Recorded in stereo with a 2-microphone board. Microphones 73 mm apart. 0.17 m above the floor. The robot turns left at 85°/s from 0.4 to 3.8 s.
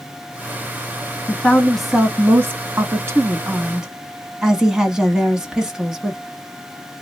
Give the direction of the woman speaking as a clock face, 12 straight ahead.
10 o'clock.